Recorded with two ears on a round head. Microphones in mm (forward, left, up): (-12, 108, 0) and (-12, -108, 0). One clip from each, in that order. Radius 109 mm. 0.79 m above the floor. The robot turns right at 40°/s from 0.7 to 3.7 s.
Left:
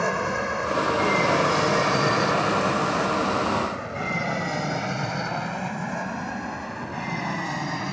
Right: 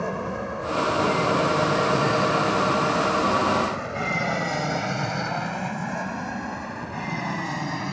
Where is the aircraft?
60° left (ahead or behind); by 7.9 s 10° left (ahead or behind).